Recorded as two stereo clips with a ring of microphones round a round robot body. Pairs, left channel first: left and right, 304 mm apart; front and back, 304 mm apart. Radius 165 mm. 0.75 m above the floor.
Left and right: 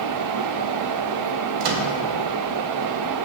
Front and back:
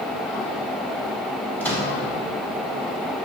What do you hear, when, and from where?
1.6 s a microwave: 85° right, 0.8 m